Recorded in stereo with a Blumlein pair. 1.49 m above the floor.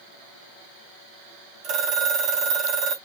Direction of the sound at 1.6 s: 35° right.